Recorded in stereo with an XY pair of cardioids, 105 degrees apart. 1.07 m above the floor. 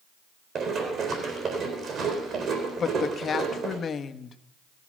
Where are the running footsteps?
60° right, 4 m.